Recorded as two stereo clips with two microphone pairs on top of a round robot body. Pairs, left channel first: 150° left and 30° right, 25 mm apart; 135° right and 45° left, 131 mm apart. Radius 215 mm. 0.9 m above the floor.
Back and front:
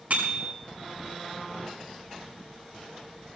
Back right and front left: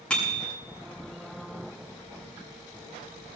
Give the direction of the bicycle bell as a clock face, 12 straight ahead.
2 o'clock.